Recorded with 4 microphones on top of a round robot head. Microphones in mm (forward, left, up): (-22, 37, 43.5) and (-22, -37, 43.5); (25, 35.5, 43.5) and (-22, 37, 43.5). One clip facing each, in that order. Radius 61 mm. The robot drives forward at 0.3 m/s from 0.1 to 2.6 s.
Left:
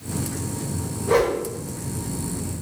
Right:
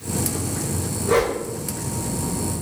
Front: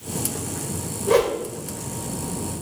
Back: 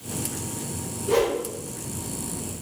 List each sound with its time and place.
1.1 s a whoosh: 10° left, 0.9 m